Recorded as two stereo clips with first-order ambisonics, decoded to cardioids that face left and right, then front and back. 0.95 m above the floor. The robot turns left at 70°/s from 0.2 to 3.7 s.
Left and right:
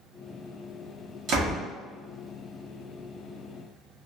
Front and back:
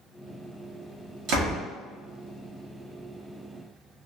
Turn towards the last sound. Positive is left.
turn(degrees=50)